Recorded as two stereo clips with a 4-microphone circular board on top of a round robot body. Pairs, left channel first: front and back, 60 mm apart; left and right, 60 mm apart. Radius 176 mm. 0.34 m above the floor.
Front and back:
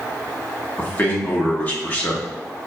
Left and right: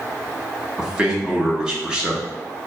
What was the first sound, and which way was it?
A man speaking, 25° right.